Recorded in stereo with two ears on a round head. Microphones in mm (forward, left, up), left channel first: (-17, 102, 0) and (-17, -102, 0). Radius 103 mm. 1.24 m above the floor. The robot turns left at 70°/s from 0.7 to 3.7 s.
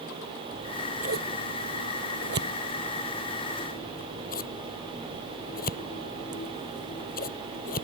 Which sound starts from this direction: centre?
Scissors, at 0.5 s.